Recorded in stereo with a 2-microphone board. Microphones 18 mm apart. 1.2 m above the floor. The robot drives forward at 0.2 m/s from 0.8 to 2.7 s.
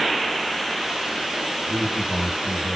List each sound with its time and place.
1.7 s a man speaking: 55° left (ahead or behind), 1.3 m; by 2.8 s 60° left (ahead or behind), 1.2 m